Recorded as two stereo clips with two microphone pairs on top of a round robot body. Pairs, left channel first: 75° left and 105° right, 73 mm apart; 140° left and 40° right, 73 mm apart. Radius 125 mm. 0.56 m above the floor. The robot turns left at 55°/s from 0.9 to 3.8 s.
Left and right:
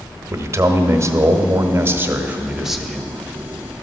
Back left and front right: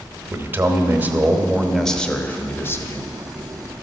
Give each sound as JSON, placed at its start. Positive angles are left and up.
{"t": 0.3, "sound": "a man speaking", "azimuth_deg": -90, "distance_m": 1.0}